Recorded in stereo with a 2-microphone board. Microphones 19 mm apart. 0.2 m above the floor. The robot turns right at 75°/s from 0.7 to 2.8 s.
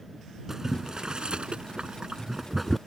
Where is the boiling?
25° right (ahead or behind); by 2.8 s 5° left (ahead or behind).